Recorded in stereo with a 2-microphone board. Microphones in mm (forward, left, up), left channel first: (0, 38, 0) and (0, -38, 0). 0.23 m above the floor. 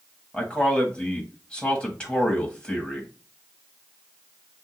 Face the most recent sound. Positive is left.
turn(degrees=15)  # may be behind; listen again after turning